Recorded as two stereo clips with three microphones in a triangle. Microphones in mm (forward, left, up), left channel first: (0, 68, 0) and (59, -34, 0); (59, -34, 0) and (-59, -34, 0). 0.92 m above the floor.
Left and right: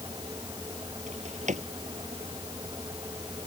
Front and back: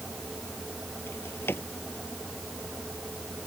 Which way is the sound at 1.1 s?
75° right.